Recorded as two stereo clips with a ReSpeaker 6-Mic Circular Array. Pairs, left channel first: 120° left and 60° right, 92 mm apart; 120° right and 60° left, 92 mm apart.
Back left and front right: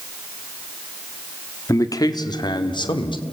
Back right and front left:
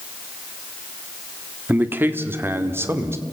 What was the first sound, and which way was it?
A man speaking, 115° left.